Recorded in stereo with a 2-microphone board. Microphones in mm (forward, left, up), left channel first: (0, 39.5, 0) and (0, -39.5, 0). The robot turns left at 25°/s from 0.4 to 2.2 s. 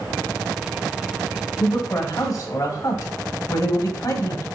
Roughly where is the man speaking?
Left.